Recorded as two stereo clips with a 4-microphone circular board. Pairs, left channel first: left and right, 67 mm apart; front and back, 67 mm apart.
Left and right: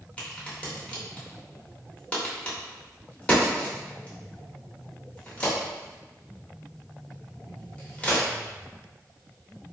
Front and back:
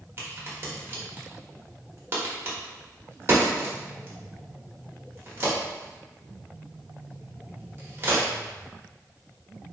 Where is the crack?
150° left, 1.0 m.